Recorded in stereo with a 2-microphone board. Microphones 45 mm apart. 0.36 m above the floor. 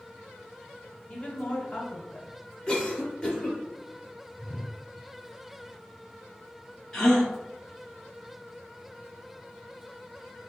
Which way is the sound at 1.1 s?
25° left (ahead or behind).